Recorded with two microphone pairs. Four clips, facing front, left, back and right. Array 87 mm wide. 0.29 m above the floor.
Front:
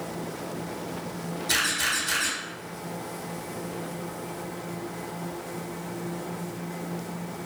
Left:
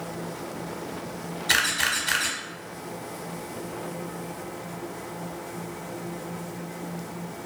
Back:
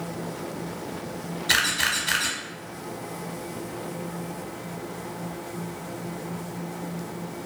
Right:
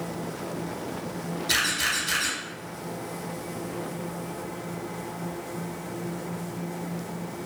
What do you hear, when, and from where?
1.5 s a camera shutter: 130° left, 0.8 m